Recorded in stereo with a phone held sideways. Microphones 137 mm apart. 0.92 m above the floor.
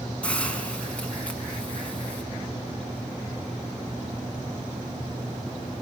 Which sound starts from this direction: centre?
A hiss, at 0.2 s.